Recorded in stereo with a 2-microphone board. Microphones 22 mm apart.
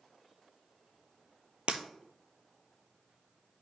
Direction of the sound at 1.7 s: 65° right (ahead or behind).